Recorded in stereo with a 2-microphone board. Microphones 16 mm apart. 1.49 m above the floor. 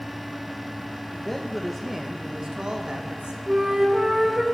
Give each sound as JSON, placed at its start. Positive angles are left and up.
{"t": 1.1, "sound": "a man speaking", "side_deg": 30, "distance_m": 1.4}
{"t": 3.5, "sound": "a flute", "side_deg": -45, "distance_m": 2.5}